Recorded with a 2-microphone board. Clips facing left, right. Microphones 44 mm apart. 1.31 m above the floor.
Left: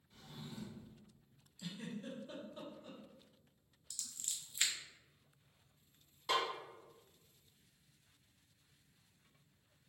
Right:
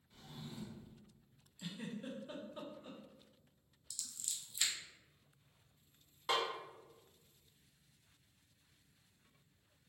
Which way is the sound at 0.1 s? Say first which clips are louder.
Even; 5° right (ahead or behind).